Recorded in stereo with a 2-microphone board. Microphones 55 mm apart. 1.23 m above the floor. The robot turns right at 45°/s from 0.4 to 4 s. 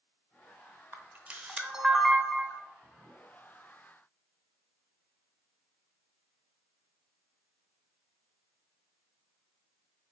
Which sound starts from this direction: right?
A camera shutter, at 0.9 s.